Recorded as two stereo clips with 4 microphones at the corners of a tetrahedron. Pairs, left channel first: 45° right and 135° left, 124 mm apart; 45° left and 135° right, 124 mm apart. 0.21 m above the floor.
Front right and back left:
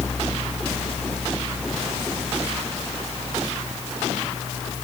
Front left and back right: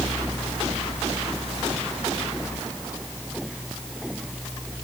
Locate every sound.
Only background noise.